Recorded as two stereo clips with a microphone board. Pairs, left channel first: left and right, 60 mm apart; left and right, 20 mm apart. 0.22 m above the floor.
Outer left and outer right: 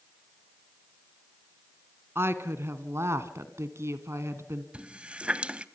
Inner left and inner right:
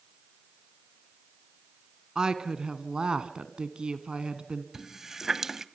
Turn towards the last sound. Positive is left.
turn(degrees=-20)  # may be behind; listen again after turning